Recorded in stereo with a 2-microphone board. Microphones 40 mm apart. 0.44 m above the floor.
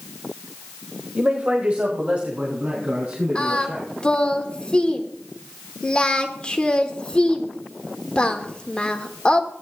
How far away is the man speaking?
About 1.3 m.